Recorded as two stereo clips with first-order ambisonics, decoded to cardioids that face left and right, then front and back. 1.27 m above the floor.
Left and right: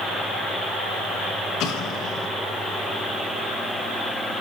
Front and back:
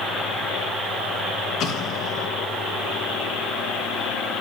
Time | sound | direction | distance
1.6 | an explosion | 50° left | 1.5 m